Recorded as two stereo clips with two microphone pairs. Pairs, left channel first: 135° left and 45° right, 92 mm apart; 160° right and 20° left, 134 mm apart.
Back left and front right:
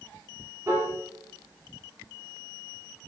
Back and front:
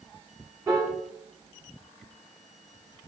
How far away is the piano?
About 1.5 m.